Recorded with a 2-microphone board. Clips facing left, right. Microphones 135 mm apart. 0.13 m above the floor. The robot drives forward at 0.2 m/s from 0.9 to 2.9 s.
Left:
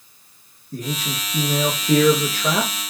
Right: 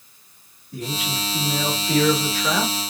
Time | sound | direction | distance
0.7 | a man speaking | 45° left (ahead or behind) | 1.5 m